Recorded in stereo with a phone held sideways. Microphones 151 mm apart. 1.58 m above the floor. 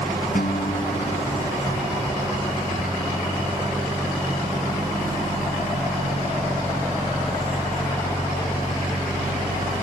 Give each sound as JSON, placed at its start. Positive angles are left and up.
{"t": 0.3, "sound": "a guitar", "side_deg": 70}